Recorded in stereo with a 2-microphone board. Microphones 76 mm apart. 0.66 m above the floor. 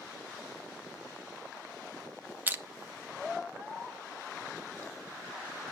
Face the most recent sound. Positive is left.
turn(degrees=-25)  # may be behind; listen again after turning